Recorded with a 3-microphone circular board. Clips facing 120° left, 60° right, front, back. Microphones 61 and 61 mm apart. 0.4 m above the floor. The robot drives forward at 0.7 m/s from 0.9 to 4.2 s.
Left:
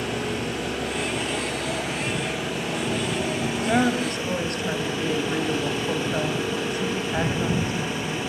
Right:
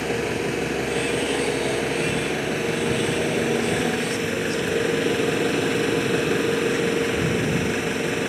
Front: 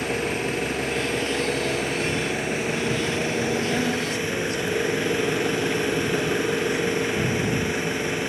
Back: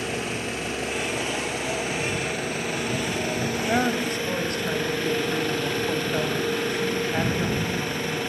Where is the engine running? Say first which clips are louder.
Right 3 dB, front 4 dB; 55° right, 7 m; by 8.3 s 70° right, 6 m.